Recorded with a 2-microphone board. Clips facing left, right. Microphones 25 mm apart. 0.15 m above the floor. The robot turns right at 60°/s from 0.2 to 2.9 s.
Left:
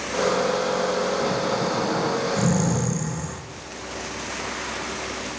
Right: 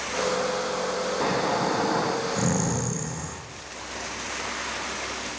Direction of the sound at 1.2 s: 105° right.